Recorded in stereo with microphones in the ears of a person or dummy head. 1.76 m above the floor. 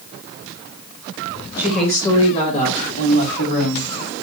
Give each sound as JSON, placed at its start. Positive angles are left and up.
{"t": 1.6, "sound": "a woman speaking", "side_deg": -10, "distance_m": 1.0}